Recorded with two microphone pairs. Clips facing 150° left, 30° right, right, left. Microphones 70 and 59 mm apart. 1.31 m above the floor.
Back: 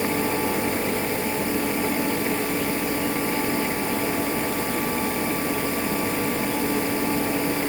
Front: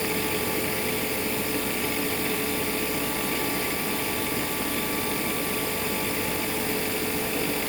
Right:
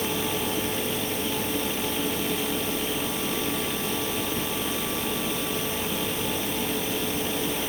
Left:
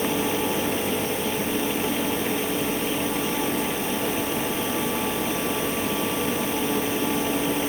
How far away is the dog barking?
I don't hear a dog barking.